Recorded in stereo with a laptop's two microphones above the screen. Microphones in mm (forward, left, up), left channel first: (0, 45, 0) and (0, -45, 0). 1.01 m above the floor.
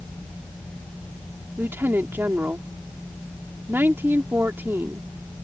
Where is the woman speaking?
25° right (ahead or behind).